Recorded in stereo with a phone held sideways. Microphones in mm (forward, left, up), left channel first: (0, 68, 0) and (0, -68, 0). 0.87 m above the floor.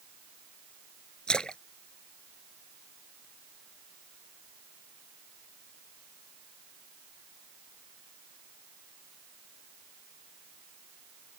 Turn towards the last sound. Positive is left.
turn(degrees=5)  # may be behind; listen again after turning